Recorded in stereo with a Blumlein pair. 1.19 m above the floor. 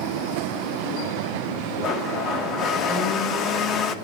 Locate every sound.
1.8 s a blender: 30° left, 0.8 m